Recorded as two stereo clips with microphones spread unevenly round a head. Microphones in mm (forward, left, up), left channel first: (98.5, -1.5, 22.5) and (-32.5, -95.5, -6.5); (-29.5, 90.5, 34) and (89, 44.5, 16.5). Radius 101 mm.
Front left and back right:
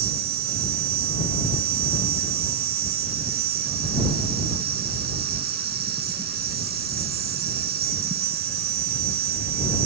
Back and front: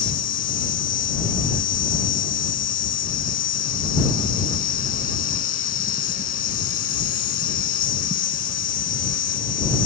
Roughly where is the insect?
Behind.